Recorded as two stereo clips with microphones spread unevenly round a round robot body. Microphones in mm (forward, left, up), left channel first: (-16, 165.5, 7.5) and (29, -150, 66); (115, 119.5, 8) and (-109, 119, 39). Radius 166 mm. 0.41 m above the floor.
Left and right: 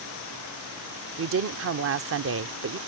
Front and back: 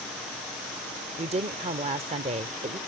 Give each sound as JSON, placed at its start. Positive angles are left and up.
{"t": 1.2, "sound": "a woman speaking", "azimuth_deg": -120}